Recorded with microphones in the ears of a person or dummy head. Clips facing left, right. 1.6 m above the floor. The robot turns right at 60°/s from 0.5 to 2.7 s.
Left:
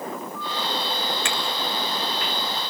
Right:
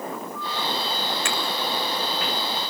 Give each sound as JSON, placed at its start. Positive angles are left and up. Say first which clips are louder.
{"t": 1.2, "sound": "a finger snap", "louder": "even", "side_deg": 75, "distance_m": 2.5}